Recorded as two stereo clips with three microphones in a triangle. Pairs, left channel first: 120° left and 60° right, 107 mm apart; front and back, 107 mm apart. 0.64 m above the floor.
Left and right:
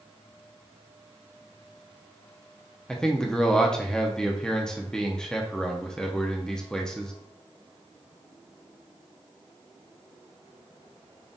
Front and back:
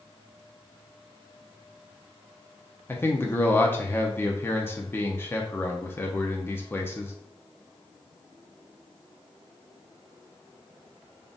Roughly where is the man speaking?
Ahead left.